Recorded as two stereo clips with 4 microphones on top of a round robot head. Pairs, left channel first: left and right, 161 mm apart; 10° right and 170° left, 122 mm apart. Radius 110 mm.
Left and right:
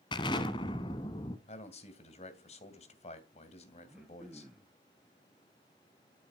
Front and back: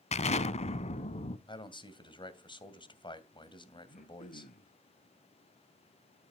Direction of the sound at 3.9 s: Straight ahead.